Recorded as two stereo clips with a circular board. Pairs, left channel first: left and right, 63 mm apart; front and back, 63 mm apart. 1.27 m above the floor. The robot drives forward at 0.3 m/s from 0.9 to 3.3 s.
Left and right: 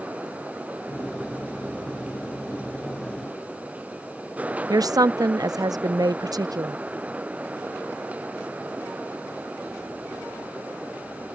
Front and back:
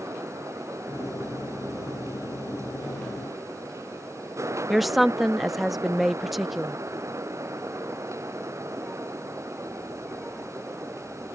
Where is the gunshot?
No gunshot in this recording.